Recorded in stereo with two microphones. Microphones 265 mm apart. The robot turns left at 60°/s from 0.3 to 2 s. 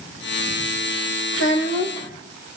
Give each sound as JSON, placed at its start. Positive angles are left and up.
{"t": 1.3, "sound": "a child speaking", "azimuth_deg": 55, "distance_m": 2.5}